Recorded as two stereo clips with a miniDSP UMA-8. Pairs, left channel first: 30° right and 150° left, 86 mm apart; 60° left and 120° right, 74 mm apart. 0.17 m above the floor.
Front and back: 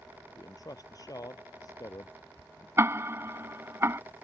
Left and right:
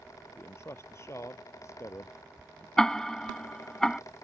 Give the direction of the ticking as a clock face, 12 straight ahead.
7 o'clock.